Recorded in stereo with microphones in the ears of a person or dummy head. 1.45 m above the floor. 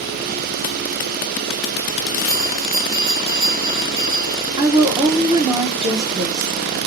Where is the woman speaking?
20° right (ahead or behind), 0.9 m.